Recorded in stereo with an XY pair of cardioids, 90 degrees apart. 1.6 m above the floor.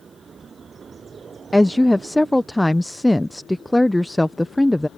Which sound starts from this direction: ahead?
A woman speaking, at 1.5 s.